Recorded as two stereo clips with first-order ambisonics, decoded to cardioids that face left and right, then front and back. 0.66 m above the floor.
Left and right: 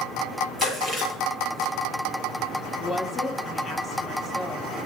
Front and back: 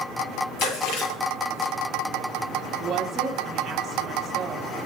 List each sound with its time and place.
0.6 s chewing: straight ahead, 8.5 m
2.8 s a woman speaking: 150° left, 0.9 m